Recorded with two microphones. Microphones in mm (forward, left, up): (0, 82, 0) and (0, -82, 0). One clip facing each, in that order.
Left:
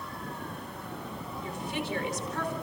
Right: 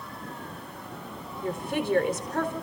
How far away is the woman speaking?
About 4.5 m.